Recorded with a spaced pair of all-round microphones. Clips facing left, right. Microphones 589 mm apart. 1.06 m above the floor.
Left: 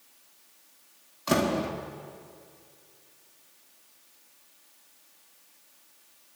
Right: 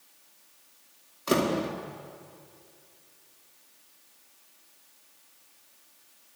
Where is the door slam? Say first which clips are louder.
Even; 15° left (ahead or behind), 1.6 m.